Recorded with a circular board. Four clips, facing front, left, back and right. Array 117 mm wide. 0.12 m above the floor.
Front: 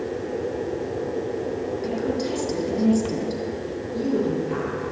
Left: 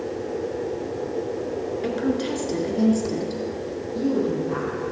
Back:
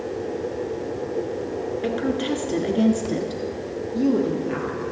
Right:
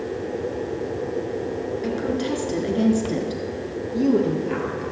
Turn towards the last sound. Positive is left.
turn(degrees=-105)